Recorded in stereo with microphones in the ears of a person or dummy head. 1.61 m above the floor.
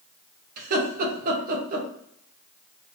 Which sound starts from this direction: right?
Laughter, at 0.6 s.